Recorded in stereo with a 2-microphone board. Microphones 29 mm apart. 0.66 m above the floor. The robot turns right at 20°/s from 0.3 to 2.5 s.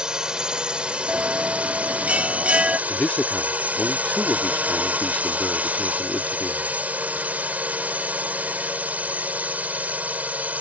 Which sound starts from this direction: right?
A bell, at 1.1 s.